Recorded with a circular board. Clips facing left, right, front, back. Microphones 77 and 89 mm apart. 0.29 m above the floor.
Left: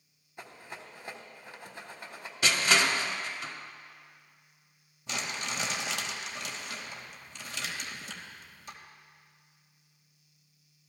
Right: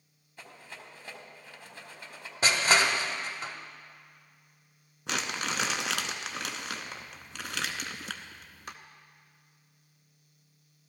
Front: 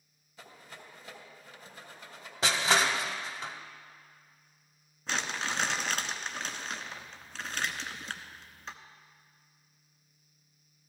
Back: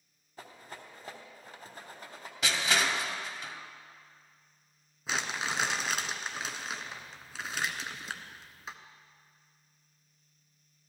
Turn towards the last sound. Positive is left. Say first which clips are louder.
# right 3 dB, even
turn(degrees=-95)